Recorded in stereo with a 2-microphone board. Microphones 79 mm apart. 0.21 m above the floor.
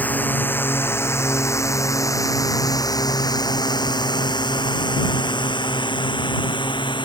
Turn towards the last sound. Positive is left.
turn(degrees=85)